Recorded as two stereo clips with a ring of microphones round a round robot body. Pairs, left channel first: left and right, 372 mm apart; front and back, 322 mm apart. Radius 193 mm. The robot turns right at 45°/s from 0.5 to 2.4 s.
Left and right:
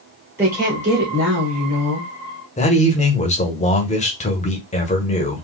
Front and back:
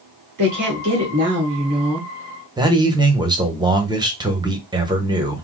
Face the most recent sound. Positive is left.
turn(degrees=125)